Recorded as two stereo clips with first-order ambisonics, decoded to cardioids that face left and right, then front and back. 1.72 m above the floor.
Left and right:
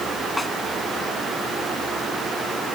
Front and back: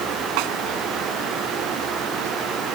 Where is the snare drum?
170° left.